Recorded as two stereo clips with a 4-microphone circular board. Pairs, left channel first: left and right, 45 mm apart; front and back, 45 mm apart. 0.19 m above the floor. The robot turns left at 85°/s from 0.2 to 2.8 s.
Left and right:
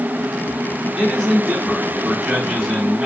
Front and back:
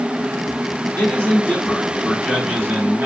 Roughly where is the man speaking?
Ahead.